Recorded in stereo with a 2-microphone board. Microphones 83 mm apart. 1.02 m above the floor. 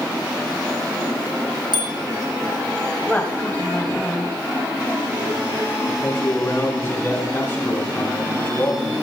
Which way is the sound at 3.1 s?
20° left (ahead or behind).